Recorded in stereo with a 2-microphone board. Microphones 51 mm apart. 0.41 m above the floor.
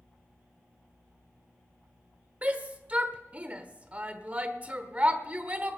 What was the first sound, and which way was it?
A shout, 25° right (ahead or behind).